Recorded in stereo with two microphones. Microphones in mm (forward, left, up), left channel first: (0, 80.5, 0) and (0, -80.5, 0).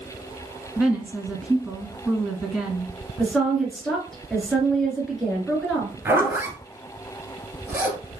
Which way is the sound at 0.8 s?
5° right (ahead or behind).